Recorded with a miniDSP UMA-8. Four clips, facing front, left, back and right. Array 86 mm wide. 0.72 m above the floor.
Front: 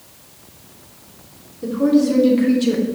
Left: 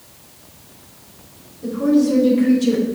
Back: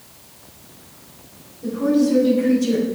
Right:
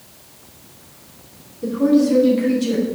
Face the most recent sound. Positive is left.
turn(degrees=10)